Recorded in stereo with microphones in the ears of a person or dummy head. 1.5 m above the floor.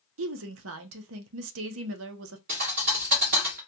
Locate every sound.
0.2 s a woman speaking: 65° right (ahead or behind), 0.6 m
2.5 s a thud: 30° right (ahead or behind), 0.9 m